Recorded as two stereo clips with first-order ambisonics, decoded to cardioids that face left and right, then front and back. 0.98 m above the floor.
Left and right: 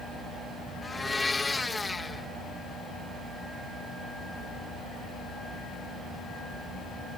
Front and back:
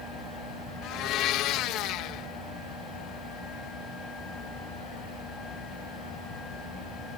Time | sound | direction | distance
0.8 | a blender | 15° left | ?